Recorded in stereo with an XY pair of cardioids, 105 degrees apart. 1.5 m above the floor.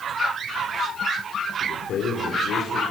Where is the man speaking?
65° left, 4 m; by 2.8 s 80° left, 4.5 m.